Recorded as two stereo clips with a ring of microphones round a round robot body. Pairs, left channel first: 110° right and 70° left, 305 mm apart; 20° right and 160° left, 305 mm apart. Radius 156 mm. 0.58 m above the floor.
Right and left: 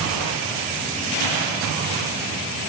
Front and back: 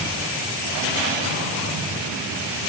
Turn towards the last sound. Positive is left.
No sound to turn to.